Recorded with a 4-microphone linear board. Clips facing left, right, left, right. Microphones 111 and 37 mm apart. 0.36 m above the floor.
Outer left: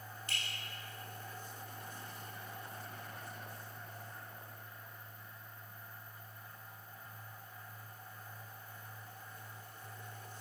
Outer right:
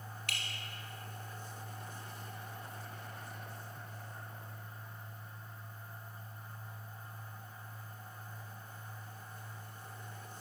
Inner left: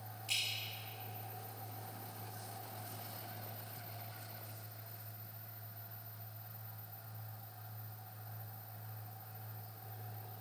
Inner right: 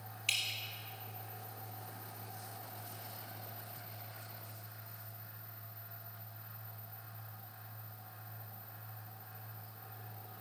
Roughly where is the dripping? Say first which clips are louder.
Outer right 1 dB, inner right 3 dB; right.